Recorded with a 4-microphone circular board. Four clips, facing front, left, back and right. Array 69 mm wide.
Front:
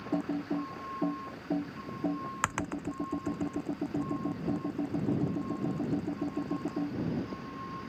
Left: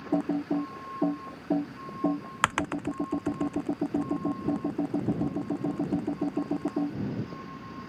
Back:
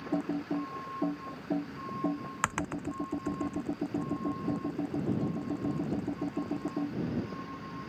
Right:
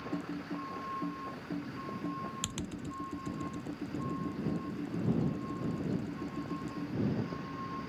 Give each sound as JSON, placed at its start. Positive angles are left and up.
{"t": 0.1, "sound": "typing on a keyboard", "azimuth_deg": 90}